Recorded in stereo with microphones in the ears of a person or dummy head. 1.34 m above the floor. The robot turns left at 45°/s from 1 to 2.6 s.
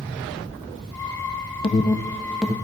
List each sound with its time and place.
1.6 s an alarm: 25° left (ahead or behind), 0.8 m; by 2.5 s 5° right (ahead or behind), 0.8 m